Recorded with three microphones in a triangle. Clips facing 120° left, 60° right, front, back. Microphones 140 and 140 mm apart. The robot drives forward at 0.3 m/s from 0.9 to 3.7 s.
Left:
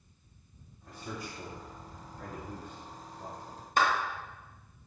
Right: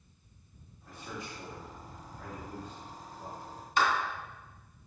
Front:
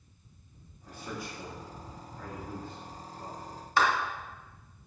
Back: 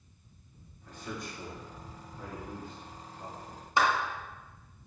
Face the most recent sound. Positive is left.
turn(degrees=115)